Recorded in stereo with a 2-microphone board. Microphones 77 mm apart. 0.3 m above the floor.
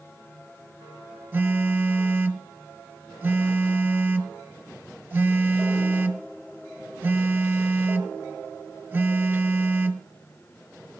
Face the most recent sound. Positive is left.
turn(degrees=-25)  # may be behind; listen again after turning